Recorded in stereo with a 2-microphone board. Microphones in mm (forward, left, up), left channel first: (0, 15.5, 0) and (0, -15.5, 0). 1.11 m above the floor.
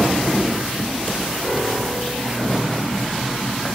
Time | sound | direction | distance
1.4 | a piano | 30° left (ahead or behind) | 2.5 m